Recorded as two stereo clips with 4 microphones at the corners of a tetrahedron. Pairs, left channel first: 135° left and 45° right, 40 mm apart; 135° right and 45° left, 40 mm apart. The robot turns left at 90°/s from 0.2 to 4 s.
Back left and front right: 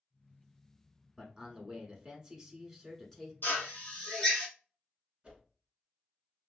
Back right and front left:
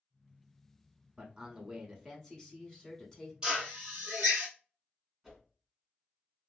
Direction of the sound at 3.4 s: 115° left.